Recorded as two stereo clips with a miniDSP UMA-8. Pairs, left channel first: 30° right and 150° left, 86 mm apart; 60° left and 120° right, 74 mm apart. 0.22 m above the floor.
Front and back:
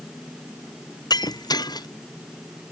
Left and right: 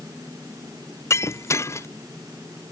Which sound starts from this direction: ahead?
Breaking glass, at 1.1 s.